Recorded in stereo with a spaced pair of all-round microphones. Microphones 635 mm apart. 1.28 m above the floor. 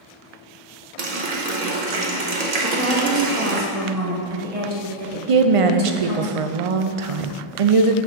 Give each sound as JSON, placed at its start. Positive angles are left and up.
{"t": 1.0, "sound": "a running tap", "side_deg": -75, "distance_m": 0.9}
{"t": 2.6, "sound": "a woman speaking", "side_deg": -60, "distance_m": 1.3}
{"t": 5.3, "sound": "a woman speaking", "side_deg": -60, "distance_m": 0.5}